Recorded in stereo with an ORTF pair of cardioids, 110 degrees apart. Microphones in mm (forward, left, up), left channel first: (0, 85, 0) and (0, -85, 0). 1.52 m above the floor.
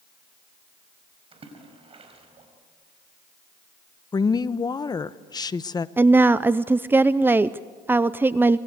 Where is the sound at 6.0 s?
10° right, 0.5 m.